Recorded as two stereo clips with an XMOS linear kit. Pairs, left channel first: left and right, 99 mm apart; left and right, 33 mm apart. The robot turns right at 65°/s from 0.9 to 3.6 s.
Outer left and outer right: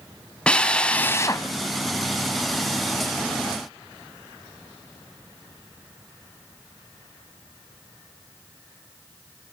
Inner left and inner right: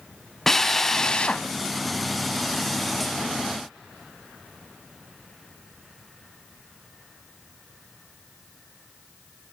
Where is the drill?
10° left, 1.9 m; by 1.5 s 50° left, 1.9 m.